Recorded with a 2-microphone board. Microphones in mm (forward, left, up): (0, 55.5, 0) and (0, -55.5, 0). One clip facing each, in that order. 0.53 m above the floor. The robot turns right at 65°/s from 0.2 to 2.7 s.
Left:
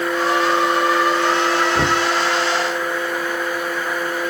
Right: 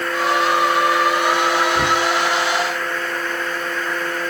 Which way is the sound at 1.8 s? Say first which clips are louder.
Even; 25° left (ahead or behind).